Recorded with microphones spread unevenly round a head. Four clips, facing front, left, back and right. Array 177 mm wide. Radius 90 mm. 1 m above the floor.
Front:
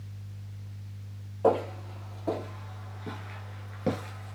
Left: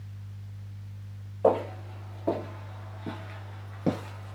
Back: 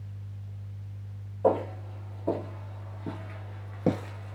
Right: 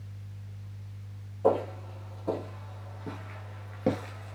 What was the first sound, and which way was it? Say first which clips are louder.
Footsteps: left 2 dB, even; 50° left.